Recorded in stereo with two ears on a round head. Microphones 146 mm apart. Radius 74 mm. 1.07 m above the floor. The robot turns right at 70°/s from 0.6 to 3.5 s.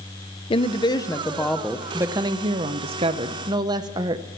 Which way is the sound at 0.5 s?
110° left.